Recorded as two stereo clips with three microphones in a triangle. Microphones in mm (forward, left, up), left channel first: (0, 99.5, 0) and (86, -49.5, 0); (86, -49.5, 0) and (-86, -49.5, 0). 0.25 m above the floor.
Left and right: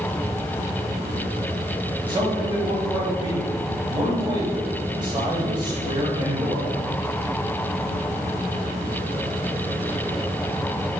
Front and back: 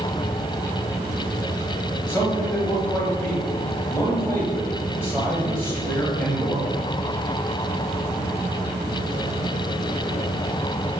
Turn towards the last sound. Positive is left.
turn(degrees=-60)